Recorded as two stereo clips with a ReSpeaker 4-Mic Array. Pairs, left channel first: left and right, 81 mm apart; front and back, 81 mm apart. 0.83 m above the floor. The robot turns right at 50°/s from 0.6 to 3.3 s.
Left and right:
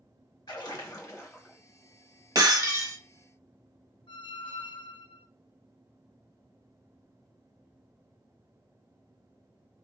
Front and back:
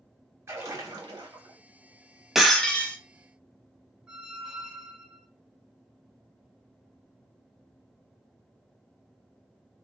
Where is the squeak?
100° left, 0.5 m.